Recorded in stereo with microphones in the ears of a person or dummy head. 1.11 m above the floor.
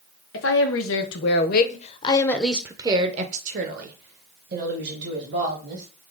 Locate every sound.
0.3 s a woman speaking: 65° left (ahead or behind), 1.2 m; by 5.9 s 65° right (ahead or behind), 1.9 m